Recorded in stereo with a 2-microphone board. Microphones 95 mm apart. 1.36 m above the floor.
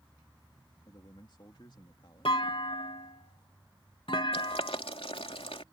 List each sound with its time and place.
0.8 s a man speaking: 50° left (ahead or behind)
2.2 s a clunk: 70° left (ahead or behind)
4.3 s boiling: 80° left